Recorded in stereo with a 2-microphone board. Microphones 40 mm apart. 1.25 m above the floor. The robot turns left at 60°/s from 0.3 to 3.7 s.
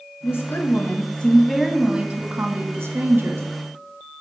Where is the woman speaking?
80° left, 0.8 m; by 3.5 s 110° right, 0.8 m.